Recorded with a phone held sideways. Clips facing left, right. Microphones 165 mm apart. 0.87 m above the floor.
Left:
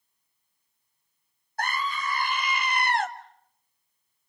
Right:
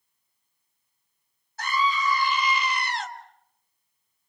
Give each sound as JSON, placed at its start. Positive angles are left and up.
{"t": 1.6, "sound": "a scream", "side_deg": 55, "distance_m": 1.5}